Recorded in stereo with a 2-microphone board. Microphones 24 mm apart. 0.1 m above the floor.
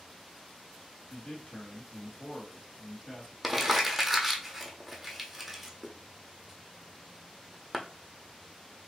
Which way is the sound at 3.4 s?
5° right (ahead or behind).